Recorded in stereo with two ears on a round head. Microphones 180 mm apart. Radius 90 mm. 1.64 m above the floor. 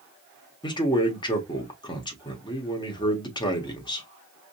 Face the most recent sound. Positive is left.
turn(degrees=20)  # may be behind; listen again after turning